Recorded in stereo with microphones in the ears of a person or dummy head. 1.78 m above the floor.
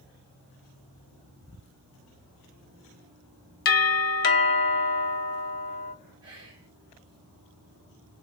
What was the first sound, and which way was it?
A doorbell, 45° left (ahead or behind).